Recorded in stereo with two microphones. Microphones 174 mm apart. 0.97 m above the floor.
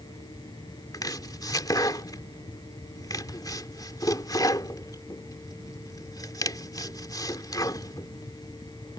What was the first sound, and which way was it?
Chopping, 20° left (ahead or behind).